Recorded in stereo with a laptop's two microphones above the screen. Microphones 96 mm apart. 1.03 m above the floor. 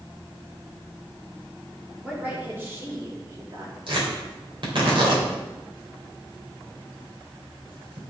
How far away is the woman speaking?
About 2.5 m.